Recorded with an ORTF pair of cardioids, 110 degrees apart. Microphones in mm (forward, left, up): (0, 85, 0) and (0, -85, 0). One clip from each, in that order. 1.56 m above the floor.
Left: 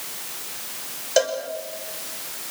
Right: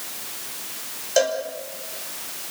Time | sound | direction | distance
1.2 | a cowbell | 10° left | 5.5 m